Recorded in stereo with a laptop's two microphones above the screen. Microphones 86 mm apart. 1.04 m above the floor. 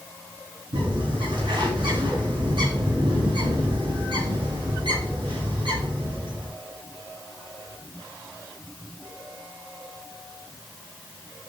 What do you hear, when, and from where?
0.7 s a bird: 70° right (ahead or behind), 6.5 m